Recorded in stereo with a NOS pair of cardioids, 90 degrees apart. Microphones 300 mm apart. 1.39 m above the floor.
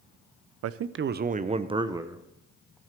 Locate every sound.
0.6 s a man speaking: 60° right, 0.6 m; by 2.8 s straight ahead, 1.4 m